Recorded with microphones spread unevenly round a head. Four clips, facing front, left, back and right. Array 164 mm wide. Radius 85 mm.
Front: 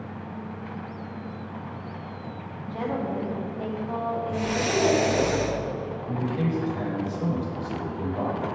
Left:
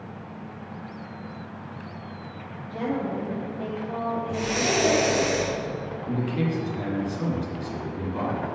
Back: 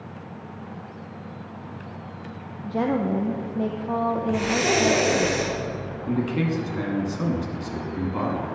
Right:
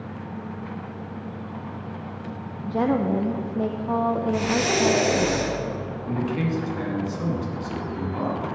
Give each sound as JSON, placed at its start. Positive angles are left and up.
{"t": 2.6, "sound": "a woman speaking", "azimuth_deg": -120, "distance_m": 0.5}
{"t": 4.3, "sound": "breathing", "azimuth_deg": -155, "distance_m": 2.5}
{"t": 6.1, "sound": "a man speaking", "azimuth_deg": 180, "distance_m": 2.0}